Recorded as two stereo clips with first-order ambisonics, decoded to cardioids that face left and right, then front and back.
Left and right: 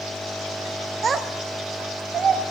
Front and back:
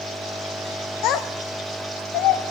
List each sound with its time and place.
1.0 s a child speaking: 25° right, 0.5 m